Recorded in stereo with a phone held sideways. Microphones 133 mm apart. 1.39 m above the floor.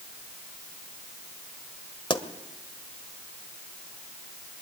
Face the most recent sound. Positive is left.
turn(degrees=35)  # may be behind; listen again after turning